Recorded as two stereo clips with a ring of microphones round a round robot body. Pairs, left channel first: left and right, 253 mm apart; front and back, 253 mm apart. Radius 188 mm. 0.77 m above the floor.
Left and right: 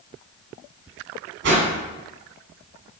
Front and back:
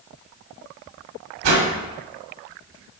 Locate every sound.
1.4 s a whoosh: 145° right, 1.4 m